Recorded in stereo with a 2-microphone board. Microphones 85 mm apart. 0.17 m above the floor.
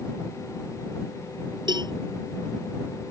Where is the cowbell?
60° right (ahead or behind).